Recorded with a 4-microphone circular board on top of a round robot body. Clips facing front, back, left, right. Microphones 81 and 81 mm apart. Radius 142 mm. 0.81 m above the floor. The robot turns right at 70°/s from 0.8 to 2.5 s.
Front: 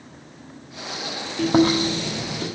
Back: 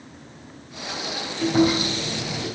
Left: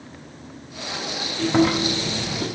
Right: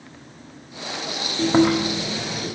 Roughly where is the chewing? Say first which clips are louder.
Front 2 dB, right 2 dB; ahead right.